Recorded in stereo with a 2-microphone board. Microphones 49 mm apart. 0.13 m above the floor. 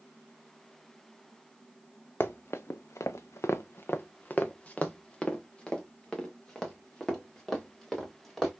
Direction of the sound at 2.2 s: 50° left (ahead or behind).